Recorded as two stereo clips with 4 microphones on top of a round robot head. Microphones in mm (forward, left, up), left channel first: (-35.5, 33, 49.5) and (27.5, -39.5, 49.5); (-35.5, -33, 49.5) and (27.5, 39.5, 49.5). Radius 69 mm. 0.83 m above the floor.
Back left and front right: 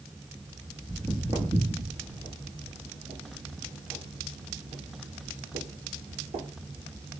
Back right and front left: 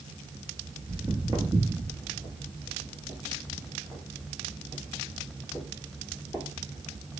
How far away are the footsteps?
About 0.9 m.